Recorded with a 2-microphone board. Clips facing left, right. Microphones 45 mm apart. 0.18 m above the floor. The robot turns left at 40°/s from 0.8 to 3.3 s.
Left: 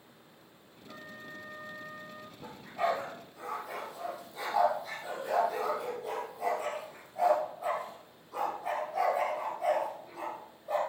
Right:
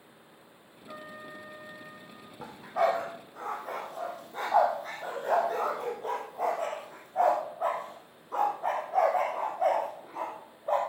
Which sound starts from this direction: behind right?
A trumpet, at 0.9 s.